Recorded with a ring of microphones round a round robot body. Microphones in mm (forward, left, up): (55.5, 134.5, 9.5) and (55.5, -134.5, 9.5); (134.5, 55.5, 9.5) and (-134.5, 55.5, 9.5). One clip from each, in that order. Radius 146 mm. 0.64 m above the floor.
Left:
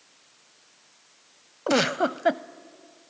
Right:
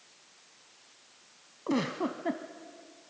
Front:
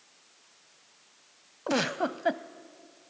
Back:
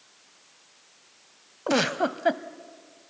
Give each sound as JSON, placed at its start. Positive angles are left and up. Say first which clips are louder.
{"t": 1.7, "sound": "a giggle", "louder": "left 9 dB, back 4 dB", "azimuth_deg": 95, "distance_m": 0.7}